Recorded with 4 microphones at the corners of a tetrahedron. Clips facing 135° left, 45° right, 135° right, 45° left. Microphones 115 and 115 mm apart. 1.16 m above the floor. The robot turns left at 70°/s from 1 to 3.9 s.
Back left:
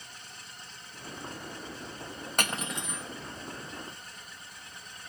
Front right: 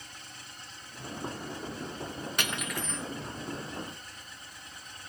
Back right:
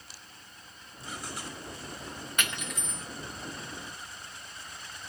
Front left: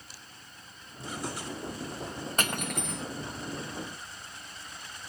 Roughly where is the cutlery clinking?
Left.